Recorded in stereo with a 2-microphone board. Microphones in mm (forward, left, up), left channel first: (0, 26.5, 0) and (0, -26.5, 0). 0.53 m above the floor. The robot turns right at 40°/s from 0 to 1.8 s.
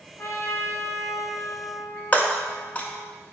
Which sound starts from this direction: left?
Breaking glass, at 2.1 s.